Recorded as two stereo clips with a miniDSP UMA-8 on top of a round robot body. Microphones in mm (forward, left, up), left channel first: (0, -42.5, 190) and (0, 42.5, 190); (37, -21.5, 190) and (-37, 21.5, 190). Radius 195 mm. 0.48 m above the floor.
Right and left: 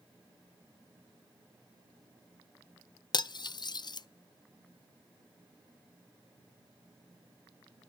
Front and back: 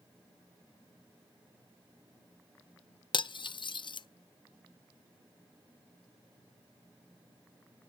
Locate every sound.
3.1 s cutlery clinking: 55° right, 0.5 m